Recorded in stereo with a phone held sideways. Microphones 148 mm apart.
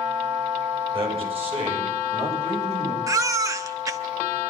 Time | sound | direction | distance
0.9 | a man speaking | 40° right (ahead or behind) | 8 m
3.1 | a baby crying | 20° right (ahead or behind) | 0.9 m